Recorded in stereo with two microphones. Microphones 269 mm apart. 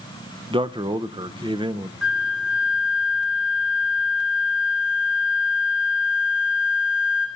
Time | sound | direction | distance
0.5 | a man speaking | 20° right (ahead or behind) | 0.6 m
2.0 | a flute | 5° right (ahead or behind) | 1.9 m